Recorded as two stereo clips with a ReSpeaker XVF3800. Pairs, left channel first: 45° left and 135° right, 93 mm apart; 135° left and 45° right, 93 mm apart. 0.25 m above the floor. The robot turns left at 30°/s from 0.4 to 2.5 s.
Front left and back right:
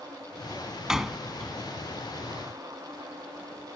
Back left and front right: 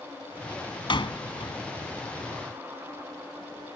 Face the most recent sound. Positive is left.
turn(degrees=95)